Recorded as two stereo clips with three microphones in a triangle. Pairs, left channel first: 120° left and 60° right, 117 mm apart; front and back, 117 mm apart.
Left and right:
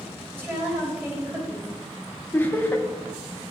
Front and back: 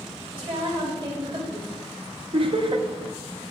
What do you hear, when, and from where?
0.3 s a woman speaking: 130° right, 2 m
2.3 s laughter: 175° right, 0.7 m